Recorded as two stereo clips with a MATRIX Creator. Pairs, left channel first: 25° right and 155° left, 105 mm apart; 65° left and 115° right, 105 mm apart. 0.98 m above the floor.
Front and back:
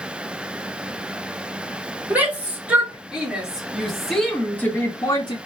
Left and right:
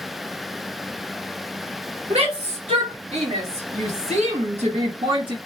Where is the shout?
125° right, 2 m; by 5.4 s 65° right, 0.7 m.